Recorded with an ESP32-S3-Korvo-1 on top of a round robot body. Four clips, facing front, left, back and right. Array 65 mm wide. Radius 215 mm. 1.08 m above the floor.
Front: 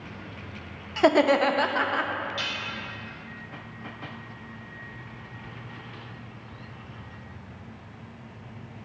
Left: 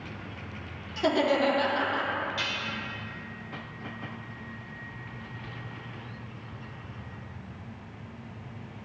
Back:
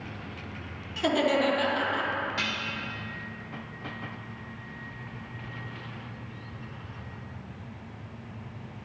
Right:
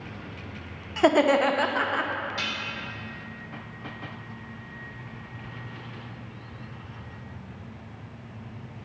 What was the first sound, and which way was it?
Laughter, 45° right.